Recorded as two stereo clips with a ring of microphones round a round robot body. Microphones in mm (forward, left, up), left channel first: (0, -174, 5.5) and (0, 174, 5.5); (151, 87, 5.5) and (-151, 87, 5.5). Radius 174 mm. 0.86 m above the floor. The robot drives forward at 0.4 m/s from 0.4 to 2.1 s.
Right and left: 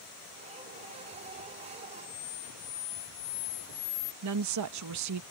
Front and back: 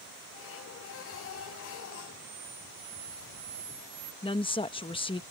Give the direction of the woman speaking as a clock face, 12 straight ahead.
10 o'clock.